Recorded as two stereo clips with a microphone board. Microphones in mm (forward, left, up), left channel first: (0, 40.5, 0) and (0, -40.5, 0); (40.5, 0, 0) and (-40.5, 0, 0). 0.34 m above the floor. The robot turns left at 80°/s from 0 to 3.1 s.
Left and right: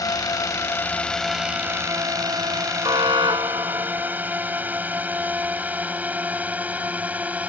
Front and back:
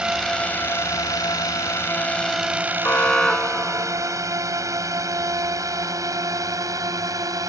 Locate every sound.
0.0 s a drone: 105° left; by 7.5 s 155° right
2.8 s an alarm: 60° right; by 4.2 s 80° right